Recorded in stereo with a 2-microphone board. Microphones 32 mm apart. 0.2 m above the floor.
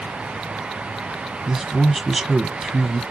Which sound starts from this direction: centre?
A man speaking, at 1.5 s.